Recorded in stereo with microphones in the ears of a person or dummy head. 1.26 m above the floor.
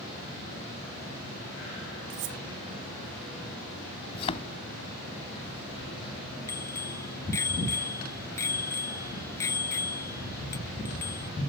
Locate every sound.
2.1 s cutlery clinking: 35° right (ahead or behind)
4.1 s a thud: 30° left (ahead or behind)
6.5 s a bicycle bell: 15° left (ahead or behind)